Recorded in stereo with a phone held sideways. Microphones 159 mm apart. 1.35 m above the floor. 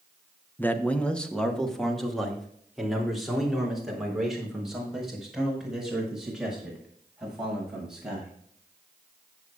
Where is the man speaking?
10° left (ahead or behind), 0.9 m; by 8.3 s 5° right (ahead or behind), 8 m.